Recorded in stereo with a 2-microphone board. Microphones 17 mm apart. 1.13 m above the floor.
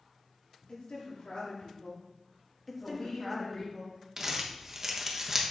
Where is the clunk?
I don't hear a clunk.